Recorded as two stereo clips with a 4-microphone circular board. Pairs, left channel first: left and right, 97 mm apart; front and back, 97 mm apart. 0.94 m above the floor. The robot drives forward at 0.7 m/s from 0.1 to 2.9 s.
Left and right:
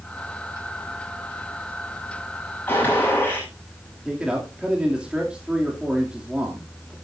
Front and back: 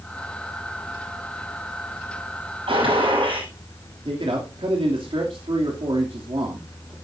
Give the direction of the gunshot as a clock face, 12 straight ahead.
7 o'clock.